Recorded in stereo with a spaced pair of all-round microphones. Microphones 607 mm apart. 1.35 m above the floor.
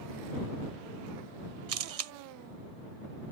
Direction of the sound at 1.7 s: 70° right (ahead or behind).